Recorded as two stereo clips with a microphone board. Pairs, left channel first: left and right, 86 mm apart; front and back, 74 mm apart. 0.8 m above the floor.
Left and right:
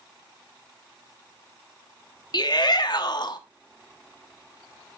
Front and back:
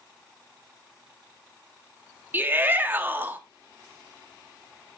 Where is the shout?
120° left, 1.2 m.